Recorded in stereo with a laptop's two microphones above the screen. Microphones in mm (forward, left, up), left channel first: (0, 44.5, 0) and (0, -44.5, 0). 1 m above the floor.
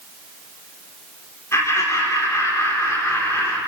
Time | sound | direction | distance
1.5 | laughter | 35° left (ahead or behind) | 3.5 m